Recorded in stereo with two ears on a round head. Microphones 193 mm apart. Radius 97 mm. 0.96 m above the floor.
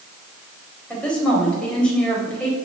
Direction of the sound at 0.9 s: 5° left (ahead or behind).